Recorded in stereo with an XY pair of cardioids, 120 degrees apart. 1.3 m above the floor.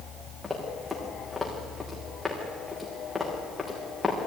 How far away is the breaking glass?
No breaking glass in this recording.